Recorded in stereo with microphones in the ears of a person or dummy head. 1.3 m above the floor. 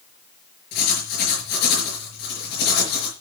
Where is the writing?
60° left (ahead or behind), 5 m.